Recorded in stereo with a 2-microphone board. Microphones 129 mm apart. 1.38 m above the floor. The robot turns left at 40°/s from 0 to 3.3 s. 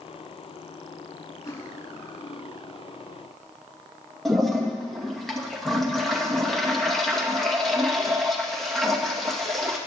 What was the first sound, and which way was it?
Cutlery clinking, 155° left.